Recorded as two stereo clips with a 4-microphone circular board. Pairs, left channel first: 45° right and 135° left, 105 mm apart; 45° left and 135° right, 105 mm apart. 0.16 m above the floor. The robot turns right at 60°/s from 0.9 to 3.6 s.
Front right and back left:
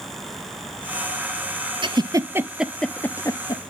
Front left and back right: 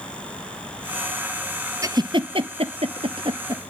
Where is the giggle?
170° left, 0.9 m; by 3.6 s 85° right, 0.9 m.